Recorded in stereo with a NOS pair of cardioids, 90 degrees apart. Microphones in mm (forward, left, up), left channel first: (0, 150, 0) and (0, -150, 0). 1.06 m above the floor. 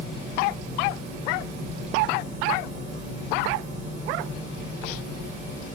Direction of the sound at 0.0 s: 55° right.